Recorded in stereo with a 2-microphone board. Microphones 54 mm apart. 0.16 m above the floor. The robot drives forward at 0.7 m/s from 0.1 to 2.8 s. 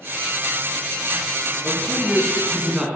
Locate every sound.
1.6 s a man speaking: 15° right (ahead or behind), 2.5 m